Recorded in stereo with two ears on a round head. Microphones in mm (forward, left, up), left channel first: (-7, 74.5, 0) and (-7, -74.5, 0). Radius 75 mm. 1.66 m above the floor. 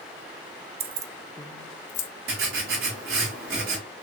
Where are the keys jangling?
35° right (ahead or behind), 0.6 m; by 2.1 s 55° left (ahead or behind), 0.9 m.